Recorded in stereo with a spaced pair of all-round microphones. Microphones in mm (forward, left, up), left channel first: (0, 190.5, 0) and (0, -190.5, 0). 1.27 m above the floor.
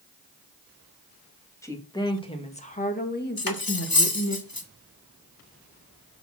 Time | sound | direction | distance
1.6 | a woman speaking | 5° left (ahead or behind) | 2.5 m
3.4 | cutlery clinking | 65° left (ahead or behind) | 1.3 m